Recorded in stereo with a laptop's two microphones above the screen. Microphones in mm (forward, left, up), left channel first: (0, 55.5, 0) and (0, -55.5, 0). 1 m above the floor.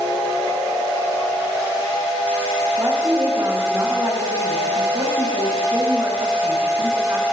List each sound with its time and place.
2.8 s a woman speaking: 35° right (ahead or behind), 7.5 m